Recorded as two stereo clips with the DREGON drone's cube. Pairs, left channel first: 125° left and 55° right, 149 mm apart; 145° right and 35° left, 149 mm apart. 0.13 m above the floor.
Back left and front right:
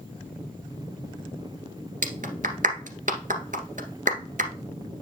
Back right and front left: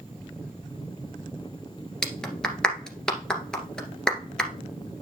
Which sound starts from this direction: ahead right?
A clap, at 2.0 s.